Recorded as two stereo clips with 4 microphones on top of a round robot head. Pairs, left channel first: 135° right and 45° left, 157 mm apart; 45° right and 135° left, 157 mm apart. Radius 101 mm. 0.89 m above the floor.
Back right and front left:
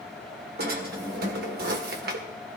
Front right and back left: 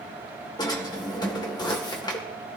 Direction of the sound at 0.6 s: 20° left.